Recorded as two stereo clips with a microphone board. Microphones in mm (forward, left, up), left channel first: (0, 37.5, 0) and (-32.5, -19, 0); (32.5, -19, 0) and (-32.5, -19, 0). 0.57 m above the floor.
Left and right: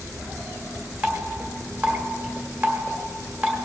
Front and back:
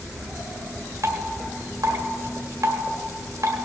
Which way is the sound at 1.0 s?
175° left.